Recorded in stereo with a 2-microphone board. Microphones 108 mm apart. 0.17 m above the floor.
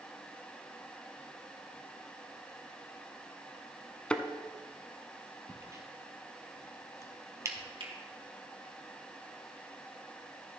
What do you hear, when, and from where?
4.1 s a thud: 10° left (ahead or behind), 0.7 m
5.5 s a crack: 30° right (ahead or behind), 1.3 m
7.8 s a finger snap: 55° right (ahead or behind), 2 m